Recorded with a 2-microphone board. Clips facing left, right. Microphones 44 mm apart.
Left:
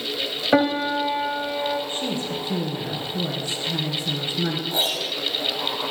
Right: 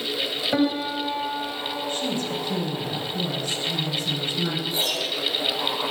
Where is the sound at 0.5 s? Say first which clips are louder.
Left 5 dB; 35° left (ahead or behind), 1.3 m.